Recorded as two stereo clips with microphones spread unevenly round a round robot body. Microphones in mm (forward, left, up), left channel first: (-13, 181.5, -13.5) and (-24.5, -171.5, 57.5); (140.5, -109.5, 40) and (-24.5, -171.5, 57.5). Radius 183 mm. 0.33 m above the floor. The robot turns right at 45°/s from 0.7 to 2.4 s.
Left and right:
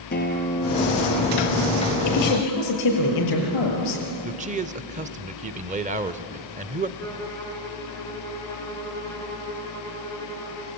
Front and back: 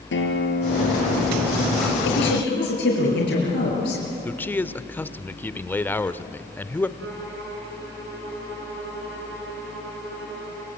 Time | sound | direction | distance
0.1 | a guitar | 20° left | 3.5 m
2.0 | a woman speaking | 40° left | 6.5 m
4.2 | a man speaking | 25° right | 1.0 m
7.0 | a violin | 170° left | 4.5 m